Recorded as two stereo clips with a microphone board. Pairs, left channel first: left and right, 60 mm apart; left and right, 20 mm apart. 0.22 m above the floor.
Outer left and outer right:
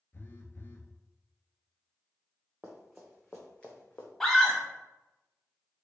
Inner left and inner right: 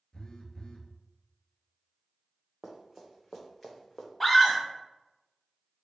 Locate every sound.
0.1 s a phone buzzing: 40° left (ahead or behind), 0.5 m
2.6 s running footsteps: 15° right (ahead or behind), 1.2 m; by 4.1 s 30° left (ahead or behind), 1.1 m
4.2 s a scream: 5° left (ahead or behind), 1.0 m